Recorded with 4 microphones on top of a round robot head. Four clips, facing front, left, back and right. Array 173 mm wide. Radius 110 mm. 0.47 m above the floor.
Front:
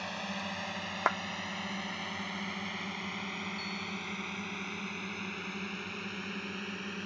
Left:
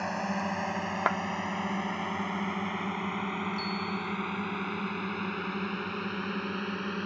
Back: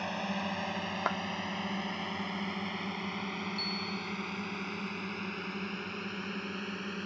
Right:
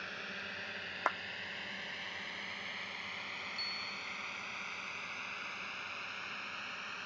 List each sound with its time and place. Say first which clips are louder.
0.0 s a drone: left 15 dB, back 4 dB; 115° left; by 7.0 s 100° left
1.1 s a clap: left 6 dB, front 4 dB; 70° left
3.5 s a bicycle bell: left 14 dB, back 2 dB; 170° left